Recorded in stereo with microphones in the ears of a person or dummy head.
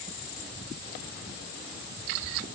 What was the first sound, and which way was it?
Only background noise.